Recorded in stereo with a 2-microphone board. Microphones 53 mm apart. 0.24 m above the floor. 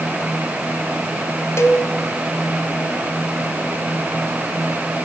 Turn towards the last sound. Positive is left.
turn(degrees=60)  # may be behind; listen again after turning